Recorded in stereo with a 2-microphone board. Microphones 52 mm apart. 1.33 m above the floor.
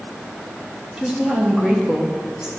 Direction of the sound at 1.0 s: 15° right (ahead or behind).